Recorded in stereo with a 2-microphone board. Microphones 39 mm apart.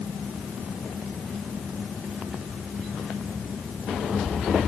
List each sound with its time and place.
Only background noise.